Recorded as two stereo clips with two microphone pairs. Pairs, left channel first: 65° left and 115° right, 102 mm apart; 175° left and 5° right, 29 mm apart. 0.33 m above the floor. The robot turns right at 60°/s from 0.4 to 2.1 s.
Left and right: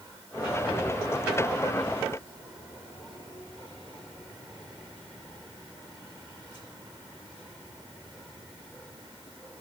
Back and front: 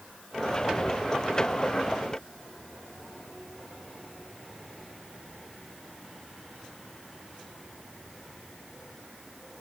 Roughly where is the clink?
I don't hear a clink.